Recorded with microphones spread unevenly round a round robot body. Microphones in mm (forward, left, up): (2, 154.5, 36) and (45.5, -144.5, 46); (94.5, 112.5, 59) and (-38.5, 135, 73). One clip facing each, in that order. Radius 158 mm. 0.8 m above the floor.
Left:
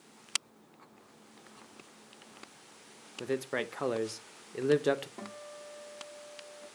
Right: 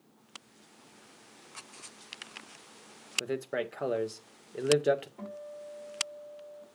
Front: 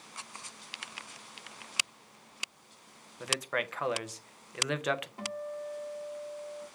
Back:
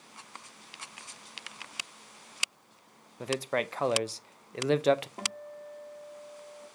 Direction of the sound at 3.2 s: 150° left.